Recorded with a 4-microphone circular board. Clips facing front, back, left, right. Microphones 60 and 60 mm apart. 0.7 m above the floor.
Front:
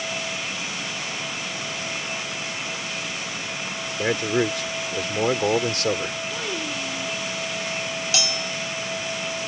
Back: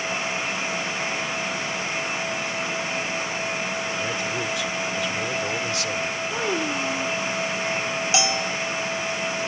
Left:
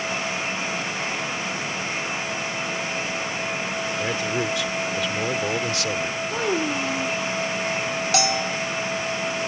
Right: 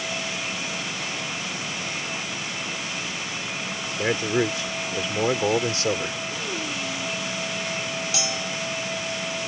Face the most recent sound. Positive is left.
turn(degrees=115)